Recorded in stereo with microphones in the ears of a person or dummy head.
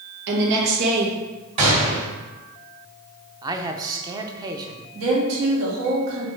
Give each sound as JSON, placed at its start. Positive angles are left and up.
{"t": 0.3, "sound": "a woman speaking", "side_deg": -60, "distance_m": 1.8}
{"t": 1.6, "sound": "a gunshot", "side_deg": -30, "distance_m": 2.5}
{"t": 3.4, "sound": "a man speaking", "side_deg": -20, "distance_m": 0.6}
{"t": 5.0, "sound": "a woman speaking", "side_deg": -75, "distance_m": 2.0}